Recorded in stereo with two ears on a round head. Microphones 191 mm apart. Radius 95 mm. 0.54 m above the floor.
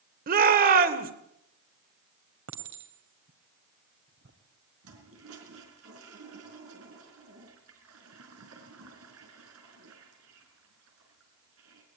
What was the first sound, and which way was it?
A shout, 45° right (ahead or behind).